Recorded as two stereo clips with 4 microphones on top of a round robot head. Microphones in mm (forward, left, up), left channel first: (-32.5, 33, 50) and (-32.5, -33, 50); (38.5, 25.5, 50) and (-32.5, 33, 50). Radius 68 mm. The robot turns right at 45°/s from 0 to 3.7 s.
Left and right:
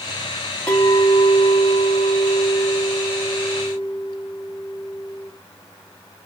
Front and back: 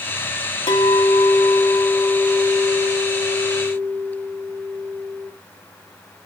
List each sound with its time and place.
0.7 s a clink: 10° left, 0.8 m; by 5.3 s 150° left, 0.8 m